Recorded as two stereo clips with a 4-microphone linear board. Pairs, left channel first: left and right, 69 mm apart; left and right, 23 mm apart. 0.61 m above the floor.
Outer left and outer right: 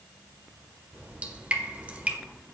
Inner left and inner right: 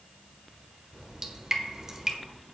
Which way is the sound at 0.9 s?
20° right (ahead or behind).